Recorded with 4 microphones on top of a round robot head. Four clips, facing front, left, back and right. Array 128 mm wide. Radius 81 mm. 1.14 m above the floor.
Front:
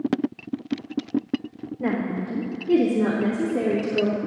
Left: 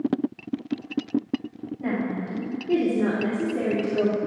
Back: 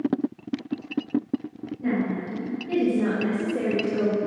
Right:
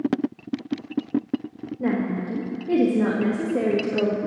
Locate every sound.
1.8 s a woman speaking: 45° right, 1.6 m; by 4.2 s 95° right, 2 m